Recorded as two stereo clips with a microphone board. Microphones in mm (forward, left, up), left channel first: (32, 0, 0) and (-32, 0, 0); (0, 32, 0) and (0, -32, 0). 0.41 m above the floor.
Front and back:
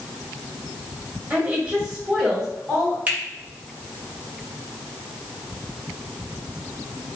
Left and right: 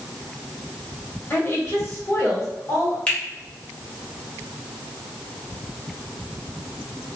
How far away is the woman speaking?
About 1.9 m.